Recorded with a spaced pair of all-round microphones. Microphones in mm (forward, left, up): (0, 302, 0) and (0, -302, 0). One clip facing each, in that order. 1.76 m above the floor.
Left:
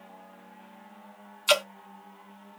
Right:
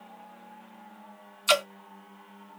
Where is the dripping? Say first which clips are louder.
Left 1 dB; centre (ahead or behind), 0.8 m.